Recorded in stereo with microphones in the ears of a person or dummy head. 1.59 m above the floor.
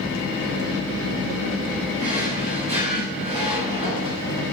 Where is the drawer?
35° right (ahead or behind), 6 m.